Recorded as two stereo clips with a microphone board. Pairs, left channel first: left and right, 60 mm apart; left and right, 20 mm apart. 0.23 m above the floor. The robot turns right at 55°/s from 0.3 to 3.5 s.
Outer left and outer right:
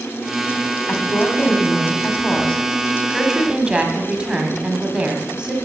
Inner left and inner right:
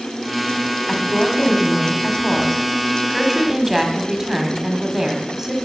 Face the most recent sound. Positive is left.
turn(degrees=-155)